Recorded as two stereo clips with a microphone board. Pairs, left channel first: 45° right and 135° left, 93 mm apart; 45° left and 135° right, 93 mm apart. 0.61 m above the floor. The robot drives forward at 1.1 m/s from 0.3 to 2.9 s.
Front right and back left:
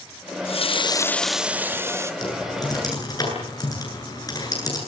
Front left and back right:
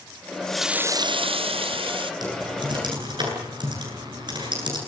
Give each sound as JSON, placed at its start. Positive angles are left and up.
{"t": 0.3, "sound": "a running tap", "azimuth_deg": -30, "distance_m": 0.8}
{"t": 2.2, "sound": "typing on a keyboard", "azimuth_deg": -90, "distance_m": 9.5}